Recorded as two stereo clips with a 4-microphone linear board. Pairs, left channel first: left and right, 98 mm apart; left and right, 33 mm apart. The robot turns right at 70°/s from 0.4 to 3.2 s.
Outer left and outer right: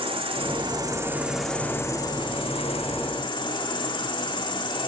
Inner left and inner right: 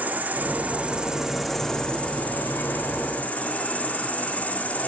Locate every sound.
0.0 s an insect: 70° right, 2.5 m; by 4.9 s 125° left, 2.5 m